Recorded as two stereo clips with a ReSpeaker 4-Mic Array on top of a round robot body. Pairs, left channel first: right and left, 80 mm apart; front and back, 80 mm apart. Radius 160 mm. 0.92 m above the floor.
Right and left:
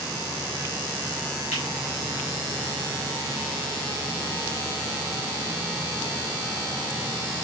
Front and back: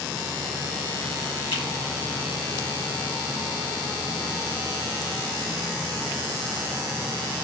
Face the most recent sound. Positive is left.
turn(degrees=25)